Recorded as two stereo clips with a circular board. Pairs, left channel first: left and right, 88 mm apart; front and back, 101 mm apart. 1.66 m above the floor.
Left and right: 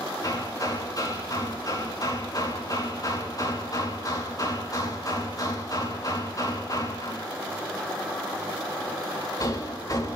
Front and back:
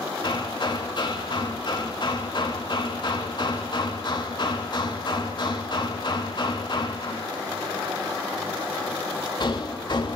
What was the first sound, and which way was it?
Hammering, 40° left.